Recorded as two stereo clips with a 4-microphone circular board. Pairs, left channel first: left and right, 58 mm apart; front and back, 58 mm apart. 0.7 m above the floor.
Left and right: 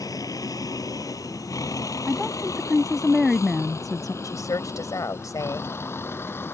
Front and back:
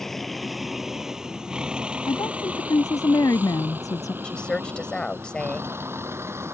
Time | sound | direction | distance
0.0 | a vehicle | 85° left | ?
2.1 | a woman speaking | straight ahead | ?
4.2 | a woman speaking | 75° left | ?